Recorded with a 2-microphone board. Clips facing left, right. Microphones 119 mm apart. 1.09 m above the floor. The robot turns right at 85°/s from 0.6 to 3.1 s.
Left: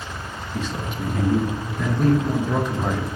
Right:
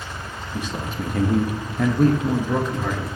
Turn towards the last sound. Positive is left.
turn(degrees=45)